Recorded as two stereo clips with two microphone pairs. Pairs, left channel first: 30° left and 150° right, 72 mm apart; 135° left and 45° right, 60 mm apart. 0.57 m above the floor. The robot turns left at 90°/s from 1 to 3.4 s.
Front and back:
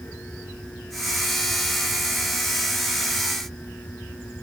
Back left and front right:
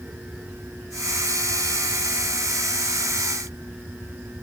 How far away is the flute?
No flute in this recording.